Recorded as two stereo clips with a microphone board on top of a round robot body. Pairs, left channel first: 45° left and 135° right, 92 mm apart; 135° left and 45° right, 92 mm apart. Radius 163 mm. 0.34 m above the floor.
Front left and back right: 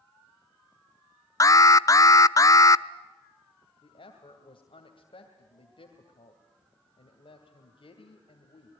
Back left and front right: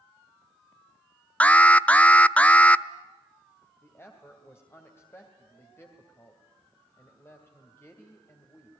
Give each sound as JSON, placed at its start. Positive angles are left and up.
{"t": 1.4, "sound": "an alarm", "azimuth_deg": 65, "distance_m": 0.8}
{"t": 3.8, "sound": "a woman speaking", "azimuth_deg": 70, "distance_m": 2.5}